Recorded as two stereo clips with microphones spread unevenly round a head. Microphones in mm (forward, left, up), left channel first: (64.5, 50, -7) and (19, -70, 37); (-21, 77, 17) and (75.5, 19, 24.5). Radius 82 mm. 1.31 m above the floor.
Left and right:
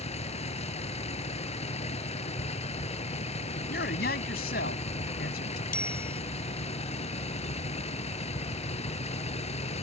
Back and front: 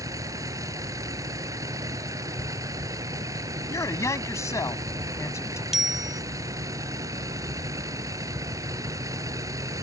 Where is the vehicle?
30° left.